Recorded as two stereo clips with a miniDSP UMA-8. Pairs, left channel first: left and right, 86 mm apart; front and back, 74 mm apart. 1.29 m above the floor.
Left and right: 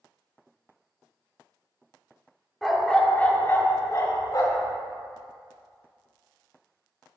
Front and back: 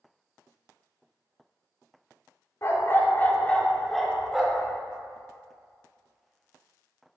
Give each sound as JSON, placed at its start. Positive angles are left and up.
{"t": 2.6, "sound": "a dog barking", "azimuth_deg": 0, "distance_m": 1.1}